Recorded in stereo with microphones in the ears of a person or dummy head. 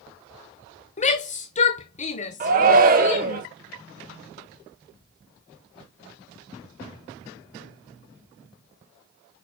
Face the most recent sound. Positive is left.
turn(degrees=-40)  # may be behind; listen again after turning